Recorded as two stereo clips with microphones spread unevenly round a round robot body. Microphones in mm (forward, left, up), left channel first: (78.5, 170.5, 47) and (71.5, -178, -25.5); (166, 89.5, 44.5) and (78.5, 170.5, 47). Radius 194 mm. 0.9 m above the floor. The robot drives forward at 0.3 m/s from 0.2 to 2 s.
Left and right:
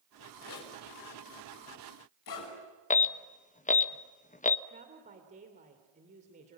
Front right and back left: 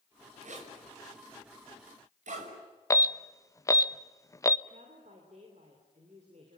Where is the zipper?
130° left, 6 m; by 2.5 s 135° left, 6.5 m.